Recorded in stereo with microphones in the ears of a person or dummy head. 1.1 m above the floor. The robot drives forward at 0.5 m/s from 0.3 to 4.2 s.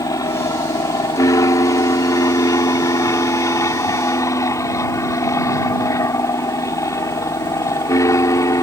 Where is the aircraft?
15° left (ahead or behind).